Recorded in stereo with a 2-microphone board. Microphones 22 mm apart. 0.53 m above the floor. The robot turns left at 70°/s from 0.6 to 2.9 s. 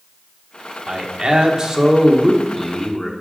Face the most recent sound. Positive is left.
turn(degrees=145)